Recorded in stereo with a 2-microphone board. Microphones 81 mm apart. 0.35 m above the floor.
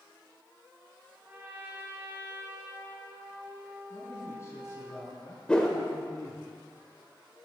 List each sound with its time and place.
1.2 s a trumpet: 25° right (ahead or behind), 1.9 m
3.9 s a man speaking: 30° left (ahead or behind), 3.5 m
5.5 s a whoosh: 10° left (ahead or behind), 1.4 m